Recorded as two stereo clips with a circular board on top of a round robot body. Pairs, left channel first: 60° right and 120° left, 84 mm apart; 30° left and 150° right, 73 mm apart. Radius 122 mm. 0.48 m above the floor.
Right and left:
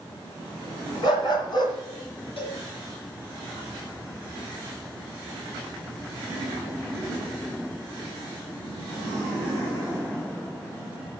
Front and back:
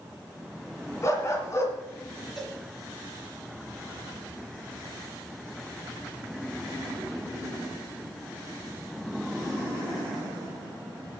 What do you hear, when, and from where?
1.0 s a dog barking: 20° right, 2.5 m
2.4 s a cowbell: 55° right, 3 m